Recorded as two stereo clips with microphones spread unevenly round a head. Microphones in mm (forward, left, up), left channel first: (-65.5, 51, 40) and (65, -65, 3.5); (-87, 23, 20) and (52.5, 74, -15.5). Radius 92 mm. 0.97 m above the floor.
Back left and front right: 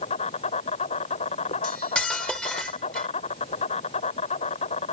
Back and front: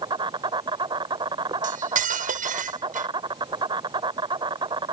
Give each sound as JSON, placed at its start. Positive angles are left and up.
{"t": 0.0, "sound": "an insect", "azimuth_deg": 80}
{"t": 1.6, "sound": "cutlery clinking", "azimuth_deg": 55}